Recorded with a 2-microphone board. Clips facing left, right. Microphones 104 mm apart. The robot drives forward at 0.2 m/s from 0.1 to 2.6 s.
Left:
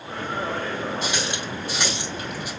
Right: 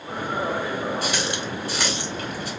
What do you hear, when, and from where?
1.0 s a running tap: 20° left (ahead or behind), 2.5 m; by 2.5 s 15° left (ahead or behind), 3 m